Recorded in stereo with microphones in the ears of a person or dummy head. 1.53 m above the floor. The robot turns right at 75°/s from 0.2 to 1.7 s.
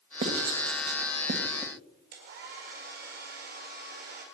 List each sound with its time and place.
0.2 s writing: 35° right (ahead or behind), 2.5 m; by 1.7 s 30° right (ahead or behind), 2.5 m
2.1 s a hair dryer: 50° right (ahead or behind), 5 m